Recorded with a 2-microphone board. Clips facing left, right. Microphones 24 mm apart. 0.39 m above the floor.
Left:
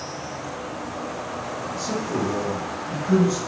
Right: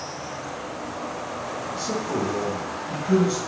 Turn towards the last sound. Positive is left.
turn(degrees=-45)  # may be behind; listen again after turning